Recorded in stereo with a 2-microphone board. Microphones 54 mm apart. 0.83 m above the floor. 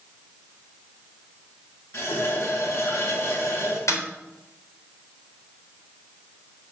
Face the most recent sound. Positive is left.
turn(degrees=80)